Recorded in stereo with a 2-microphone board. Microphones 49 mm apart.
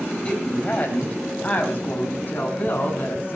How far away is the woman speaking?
About 3.5 m.